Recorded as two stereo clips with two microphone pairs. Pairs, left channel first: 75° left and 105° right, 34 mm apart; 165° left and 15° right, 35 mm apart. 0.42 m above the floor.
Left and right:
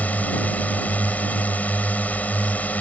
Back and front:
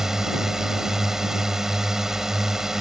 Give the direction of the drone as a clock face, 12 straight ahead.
10 o'clock.